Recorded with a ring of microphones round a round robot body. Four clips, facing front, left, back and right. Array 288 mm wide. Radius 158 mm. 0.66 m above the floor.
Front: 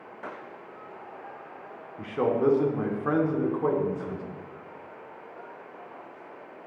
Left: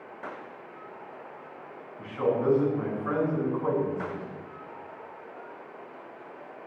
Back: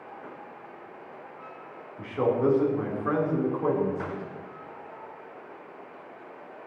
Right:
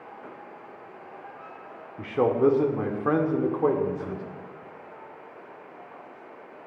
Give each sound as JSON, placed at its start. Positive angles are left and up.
{"t": 2.0, "sound": "a man speaking", "azimuth_deg": -85, "distance_m": 1.7}